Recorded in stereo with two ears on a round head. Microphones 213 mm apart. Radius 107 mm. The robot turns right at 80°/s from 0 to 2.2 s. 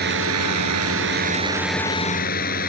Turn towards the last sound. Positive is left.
turn(degrees=40)